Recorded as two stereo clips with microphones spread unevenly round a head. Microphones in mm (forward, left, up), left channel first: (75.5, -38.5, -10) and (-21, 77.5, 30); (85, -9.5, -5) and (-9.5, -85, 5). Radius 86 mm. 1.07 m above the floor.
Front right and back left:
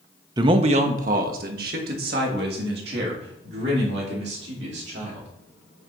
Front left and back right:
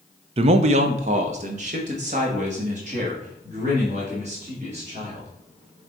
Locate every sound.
0.4 s a man speaking: 155° right, 0.5 m; by 5.3 s 160° left, 3 m